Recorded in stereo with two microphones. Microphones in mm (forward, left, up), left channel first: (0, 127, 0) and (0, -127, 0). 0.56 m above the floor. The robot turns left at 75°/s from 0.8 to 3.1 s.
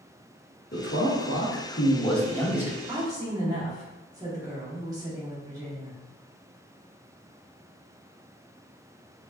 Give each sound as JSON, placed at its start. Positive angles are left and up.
{"t": 0.7, "sound": "a man speaking", "azimuth_deg": 125, "distance_m": 0.8}
{"t": 2.9, "sound": "a woman speaking", "side_deg": -5, "distance_m": 1.1}